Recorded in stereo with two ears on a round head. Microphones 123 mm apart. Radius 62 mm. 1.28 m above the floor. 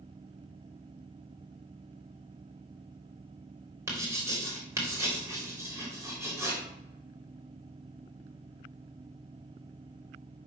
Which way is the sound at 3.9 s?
20° right (ahead or behind).